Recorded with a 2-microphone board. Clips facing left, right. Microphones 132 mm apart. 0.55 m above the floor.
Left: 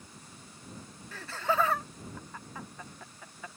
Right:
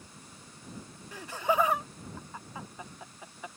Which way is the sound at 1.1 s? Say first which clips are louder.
Right 2 dB; 15° right (ahead or behind).